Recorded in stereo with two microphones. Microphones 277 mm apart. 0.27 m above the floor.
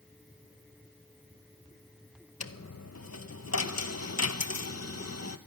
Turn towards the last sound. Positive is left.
turn(degrees=70)  # may be behind; listen again after turning